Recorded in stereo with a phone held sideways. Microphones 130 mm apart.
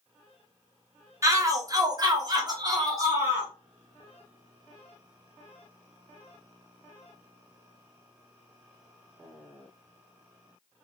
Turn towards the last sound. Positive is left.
turn(degrees=-25)  # may be behind; listen again after turning